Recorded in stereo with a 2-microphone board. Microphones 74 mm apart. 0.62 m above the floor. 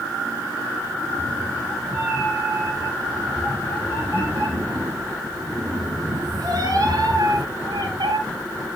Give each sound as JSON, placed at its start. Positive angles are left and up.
{"t": 1.0, "sound": "a cat meowing", "side_deg": -25, "distance_m": 7.0}